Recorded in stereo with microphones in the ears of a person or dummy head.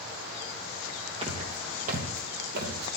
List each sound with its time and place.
1.2 s footsteps: 40° right (ahead or behind), 3 m; by 3.0 s 60° right (ahead or behind), 3 m